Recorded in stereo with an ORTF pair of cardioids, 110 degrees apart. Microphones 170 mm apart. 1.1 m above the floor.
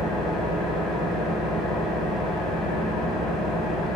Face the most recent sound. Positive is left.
turn(degrees=0)